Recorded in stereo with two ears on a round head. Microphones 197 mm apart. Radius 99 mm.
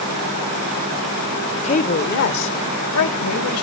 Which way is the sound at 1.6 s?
30° left (ahead or behind).